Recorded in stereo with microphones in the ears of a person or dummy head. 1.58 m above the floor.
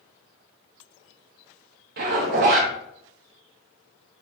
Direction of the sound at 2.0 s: 50° right (ahead or behind).